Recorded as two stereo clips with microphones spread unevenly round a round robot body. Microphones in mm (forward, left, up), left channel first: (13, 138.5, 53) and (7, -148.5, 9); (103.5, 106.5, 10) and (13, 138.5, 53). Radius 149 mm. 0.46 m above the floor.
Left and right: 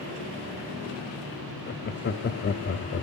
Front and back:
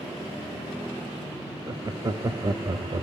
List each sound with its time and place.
1.7 s laughter: 95° left, 0.8 m